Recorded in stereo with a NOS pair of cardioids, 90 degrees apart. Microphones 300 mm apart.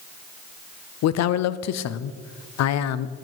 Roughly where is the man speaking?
Ahead left.